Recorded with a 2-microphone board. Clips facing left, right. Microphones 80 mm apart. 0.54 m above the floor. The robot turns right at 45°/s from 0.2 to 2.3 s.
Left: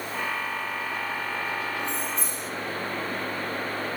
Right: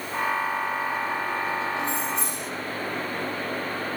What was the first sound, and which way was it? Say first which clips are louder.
Keys jangling: right 3 dB; 80° right.